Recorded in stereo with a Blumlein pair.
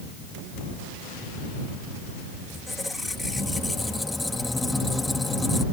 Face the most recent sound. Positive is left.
turn(degrees=5)